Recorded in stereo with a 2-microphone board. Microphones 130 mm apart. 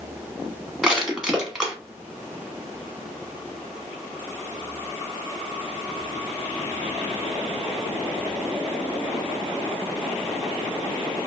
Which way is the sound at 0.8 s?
5° right (ahead or behind).